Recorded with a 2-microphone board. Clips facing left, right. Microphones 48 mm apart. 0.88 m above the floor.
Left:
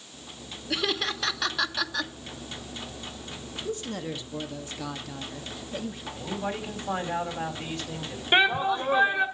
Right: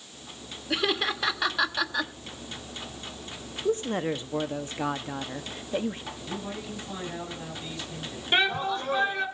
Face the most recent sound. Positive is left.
turn(degrees=20)  # may be behind; listen again after turning